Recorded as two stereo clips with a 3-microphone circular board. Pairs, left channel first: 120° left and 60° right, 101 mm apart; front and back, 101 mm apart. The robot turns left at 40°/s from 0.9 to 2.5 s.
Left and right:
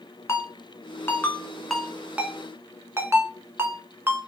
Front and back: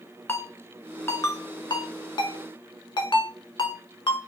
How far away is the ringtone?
About 0.6 m.